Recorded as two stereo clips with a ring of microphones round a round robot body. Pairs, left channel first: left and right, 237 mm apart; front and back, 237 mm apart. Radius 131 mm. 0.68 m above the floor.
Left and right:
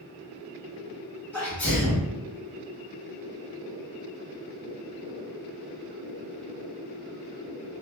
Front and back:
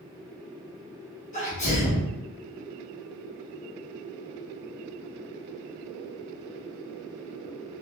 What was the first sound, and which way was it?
A sneeze, 15° left.